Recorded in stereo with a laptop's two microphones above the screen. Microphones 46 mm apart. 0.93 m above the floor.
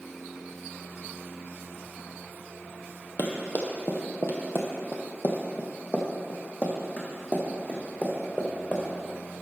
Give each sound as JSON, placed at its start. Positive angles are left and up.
{"t": 3.2, "sound": "running footsteps", "side_deg": 45, "distance_m": 1.4}